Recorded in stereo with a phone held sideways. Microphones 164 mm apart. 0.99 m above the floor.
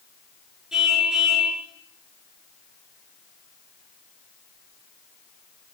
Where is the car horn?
5° right (ahead or behind), 8 m.